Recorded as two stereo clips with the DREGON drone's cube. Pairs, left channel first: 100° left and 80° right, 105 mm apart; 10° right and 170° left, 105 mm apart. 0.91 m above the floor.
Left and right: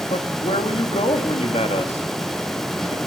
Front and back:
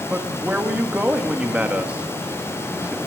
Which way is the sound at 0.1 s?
95° left.